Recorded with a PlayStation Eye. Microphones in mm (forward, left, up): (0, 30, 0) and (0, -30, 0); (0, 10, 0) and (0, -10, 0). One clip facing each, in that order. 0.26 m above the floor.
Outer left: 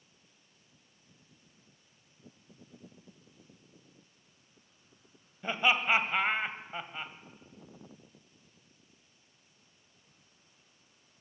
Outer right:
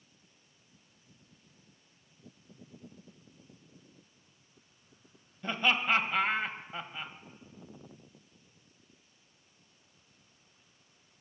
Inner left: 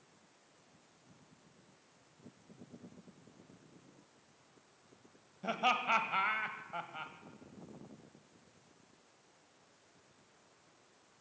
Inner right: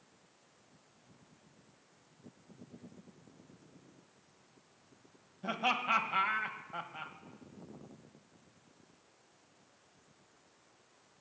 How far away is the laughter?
About 1.2 m.